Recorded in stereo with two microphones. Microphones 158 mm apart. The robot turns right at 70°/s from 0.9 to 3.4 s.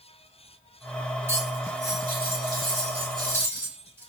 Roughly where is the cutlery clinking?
Behind.